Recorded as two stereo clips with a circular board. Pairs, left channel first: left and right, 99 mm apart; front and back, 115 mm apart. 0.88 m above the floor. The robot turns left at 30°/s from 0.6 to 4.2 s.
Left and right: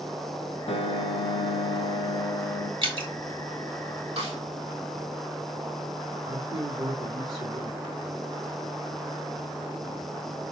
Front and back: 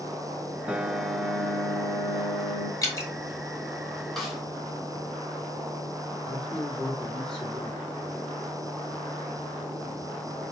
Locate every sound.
0.7 s a piano: 100° left, 0.8 m; by 2.7 s 40° left, 0.8 m
2.8 s dripping: 60° right, 1.8 m; by 3.1 s 65° right, 1.8 m
4.2 s a snare drum: 85° right, 2.5 m
6.2 s a man speaking: 80° right, 3 m